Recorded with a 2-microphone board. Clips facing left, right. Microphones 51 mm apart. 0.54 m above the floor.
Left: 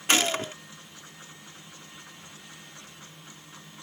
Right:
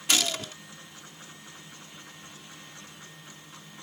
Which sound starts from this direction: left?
A gunshot, at 0.1 s.